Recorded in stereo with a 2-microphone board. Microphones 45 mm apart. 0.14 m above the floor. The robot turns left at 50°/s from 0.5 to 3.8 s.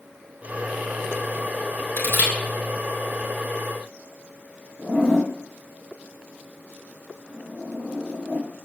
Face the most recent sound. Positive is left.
turn(degrees=-45)  # may be behind; listen again after turning